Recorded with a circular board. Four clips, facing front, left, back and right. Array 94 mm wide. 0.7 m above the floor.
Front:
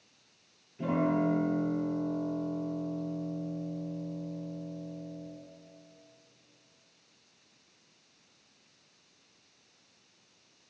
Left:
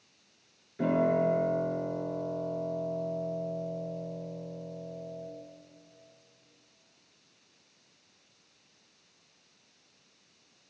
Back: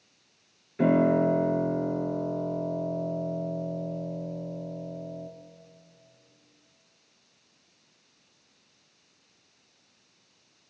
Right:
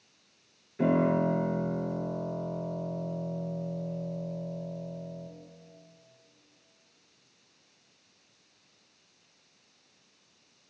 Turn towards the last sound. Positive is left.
turn(degrees=-175)